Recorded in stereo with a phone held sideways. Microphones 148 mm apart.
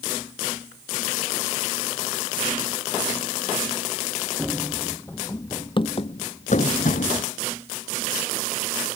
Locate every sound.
4.4 s running footsteps: 5° right (ahead or behind); by 7.3 s 65° left (ahead or behind)